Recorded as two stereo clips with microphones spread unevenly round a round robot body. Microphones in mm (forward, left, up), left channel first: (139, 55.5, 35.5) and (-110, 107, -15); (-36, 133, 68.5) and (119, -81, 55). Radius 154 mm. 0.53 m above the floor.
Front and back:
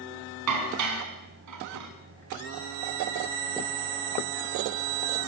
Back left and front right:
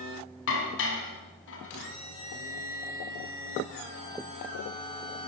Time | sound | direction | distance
0.5 | dishes clattering | 175° left | 3 m